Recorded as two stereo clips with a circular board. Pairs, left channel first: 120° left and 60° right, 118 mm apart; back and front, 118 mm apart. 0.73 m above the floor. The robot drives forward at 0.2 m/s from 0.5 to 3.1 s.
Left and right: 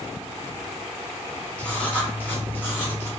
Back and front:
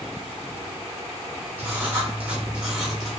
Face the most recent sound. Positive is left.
turn(degrees=90)